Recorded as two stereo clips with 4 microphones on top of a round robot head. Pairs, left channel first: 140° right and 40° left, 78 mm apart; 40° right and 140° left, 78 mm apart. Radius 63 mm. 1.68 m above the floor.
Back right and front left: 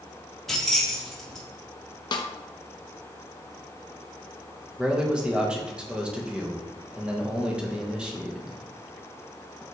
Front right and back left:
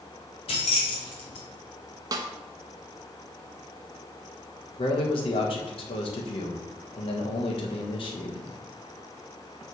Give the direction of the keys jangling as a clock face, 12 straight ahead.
2 o'clock.